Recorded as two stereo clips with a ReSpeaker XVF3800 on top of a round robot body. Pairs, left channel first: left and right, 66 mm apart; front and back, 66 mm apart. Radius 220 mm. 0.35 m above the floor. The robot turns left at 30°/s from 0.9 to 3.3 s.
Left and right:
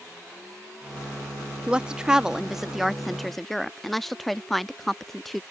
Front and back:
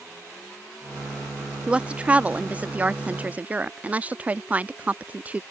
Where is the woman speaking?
135° right; by 5.4 s 175° left.